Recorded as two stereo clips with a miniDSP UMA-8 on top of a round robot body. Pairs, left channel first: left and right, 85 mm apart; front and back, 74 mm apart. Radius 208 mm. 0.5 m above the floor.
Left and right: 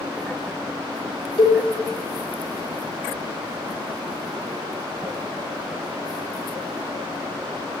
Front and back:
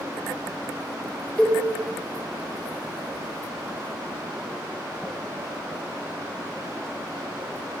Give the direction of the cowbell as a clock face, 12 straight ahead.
10 o'clock.